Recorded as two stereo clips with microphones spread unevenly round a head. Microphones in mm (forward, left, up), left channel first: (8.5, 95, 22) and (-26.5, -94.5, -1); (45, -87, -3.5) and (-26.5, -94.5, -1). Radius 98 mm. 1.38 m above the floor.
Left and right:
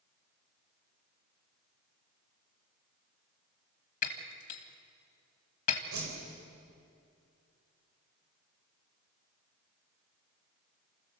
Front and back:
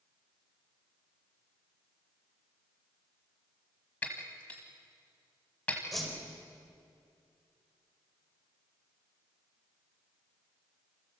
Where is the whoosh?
85° right, 5 m.